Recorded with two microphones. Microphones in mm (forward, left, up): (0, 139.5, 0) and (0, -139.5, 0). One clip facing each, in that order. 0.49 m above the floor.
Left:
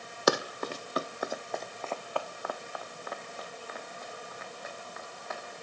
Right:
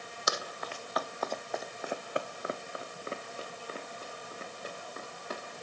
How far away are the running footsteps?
About 1.0 m.